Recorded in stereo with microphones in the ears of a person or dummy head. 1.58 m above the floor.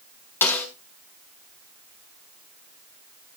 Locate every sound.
0.4 s a snare drum: 15° left (ahead or behind), 1.9 m